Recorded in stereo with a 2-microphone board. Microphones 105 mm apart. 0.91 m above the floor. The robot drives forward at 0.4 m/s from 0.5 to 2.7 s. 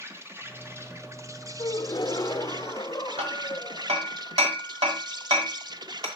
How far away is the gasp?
About 0.7 m.